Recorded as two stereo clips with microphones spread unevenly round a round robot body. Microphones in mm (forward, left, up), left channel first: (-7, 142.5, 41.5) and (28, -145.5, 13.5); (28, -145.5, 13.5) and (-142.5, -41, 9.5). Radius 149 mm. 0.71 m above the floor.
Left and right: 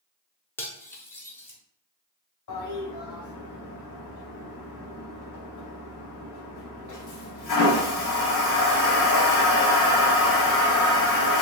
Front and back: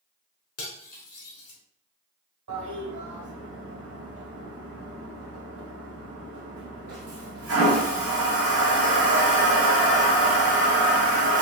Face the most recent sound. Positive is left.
turn(degrees=130)